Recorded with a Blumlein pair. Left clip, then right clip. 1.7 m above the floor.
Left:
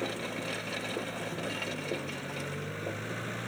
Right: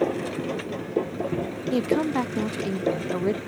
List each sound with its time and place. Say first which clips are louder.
0.0 s a machine running: right 8 dB; 35° right
1.7 s a woman speaking: right 12 dB; 50° right